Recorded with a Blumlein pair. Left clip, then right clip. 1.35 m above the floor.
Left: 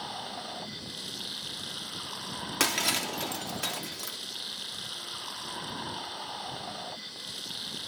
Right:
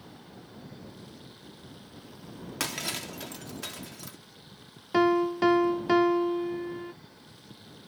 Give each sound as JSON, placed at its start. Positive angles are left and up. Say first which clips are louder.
{"t": 0.0, "sound": "running water", "louder": "left 13 dB", "azimuth_deg": 50}
{"t": 2.6, "sound": "breaking glass", "louder": "left 6 dB", "azimuth_deg": 20}
{"t": 4.9, "sound": "a piano", "louder": "right 14 dB", "azimuth_deg": -45}